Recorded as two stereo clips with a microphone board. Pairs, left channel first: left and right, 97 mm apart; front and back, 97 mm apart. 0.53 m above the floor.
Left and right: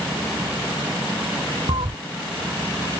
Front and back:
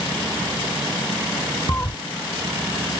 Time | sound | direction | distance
1.7 | a cat meowing | 70° right | ?